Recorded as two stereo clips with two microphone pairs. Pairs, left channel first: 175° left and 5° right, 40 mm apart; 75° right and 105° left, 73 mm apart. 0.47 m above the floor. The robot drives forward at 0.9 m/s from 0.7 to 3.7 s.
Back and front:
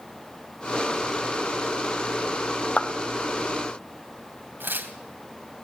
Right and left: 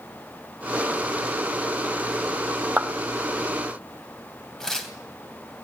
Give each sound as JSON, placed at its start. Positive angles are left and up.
{"t": 2.8, "sound": "a clap", "azimuth_deg": 150, "distance_m": 1.2}
{"t": 4.6, "sound": "tearing paper", "azimuth_deg": 10, "distance_m": 2.5}